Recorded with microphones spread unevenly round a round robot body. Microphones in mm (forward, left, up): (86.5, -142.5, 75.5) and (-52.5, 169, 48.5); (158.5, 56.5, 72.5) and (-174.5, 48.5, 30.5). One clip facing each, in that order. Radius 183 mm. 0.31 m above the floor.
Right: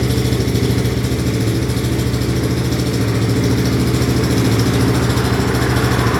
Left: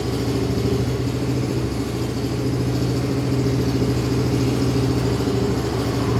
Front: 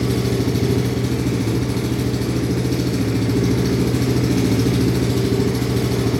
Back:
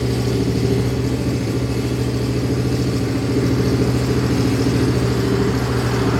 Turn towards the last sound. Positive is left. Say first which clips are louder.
# right 4 dB, even
turn(degrees=-75)